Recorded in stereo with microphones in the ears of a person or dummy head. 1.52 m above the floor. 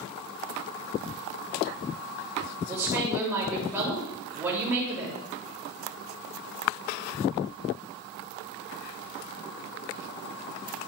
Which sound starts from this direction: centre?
A woman speaking, at 2.7 s.